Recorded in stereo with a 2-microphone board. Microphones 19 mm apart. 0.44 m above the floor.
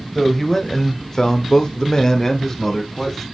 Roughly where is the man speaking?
Centre.